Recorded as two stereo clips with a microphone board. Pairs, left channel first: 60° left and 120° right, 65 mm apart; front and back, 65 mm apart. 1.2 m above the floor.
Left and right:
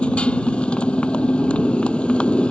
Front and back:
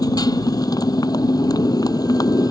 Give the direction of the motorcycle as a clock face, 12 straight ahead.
12 o'clock.